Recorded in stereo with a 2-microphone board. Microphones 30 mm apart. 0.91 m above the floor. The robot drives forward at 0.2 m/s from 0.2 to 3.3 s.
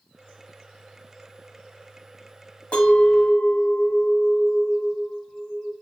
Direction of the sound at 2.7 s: 40° left (ahead or behind).